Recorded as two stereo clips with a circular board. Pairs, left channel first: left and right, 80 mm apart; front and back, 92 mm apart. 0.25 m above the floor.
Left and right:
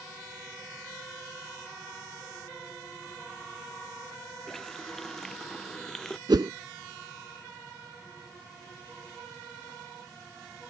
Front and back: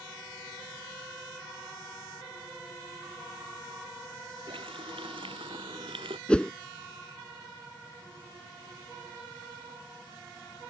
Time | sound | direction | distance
4.5 | a running tap | 175° left | ?
6.3 | a whoosh | 80° right | ?